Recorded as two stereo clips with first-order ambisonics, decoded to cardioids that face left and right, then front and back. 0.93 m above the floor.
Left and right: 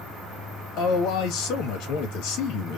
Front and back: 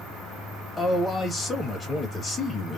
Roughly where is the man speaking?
Left.